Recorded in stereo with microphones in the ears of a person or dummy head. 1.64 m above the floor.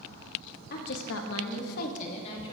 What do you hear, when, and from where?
0.7 s a woman speaking: 50° left (ahead or behind), 1.0 m; by 2.5 s 30° left (ahead or behind), 1.6 m